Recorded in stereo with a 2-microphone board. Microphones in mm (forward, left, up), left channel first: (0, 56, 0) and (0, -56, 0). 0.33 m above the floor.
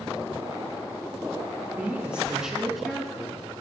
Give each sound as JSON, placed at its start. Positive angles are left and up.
{"t": 1.7, "sound": "a woman speaking", "side_deg": -15, "distance_m": 4.0}